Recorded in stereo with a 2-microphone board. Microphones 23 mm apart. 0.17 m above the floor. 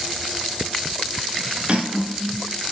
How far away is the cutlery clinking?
About 1.4 m.